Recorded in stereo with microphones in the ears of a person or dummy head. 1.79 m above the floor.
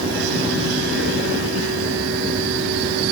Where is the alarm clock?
No alarm clock in this recording.